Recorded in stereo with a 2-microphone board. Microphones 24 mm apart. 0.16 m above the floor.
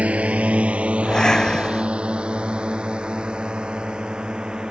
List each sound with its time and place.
0.0 s a drone: 65° right (ahead or behind); by 4.7 s 35° right (ahead or behind)
1.0 s breathing: 25° left (ahead or behind)